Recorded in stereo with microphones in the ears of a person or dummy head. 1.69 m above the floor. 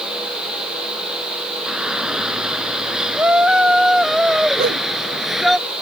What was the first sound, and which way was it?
A shout, centre (ahead or behind).